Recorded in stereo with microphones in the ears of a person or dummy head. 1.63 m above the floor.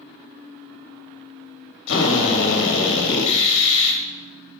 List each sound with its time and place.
1.9 s a drill: 70° left (ahead or behind), 1.3 m